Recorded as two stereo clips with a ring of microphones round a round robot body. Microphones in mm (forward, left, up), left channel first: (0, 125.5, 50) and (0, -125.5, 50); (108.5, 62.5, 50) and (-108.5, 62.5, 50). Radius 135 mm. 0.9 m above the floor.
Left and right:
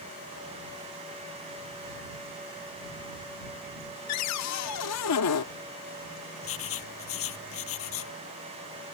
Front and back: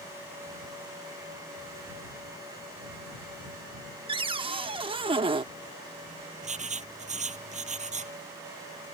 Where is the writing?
125° left.